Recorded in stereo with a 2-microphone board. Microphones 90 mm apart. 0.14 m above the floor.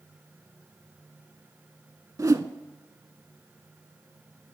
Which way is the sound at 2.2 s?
40° right (ahead or behind).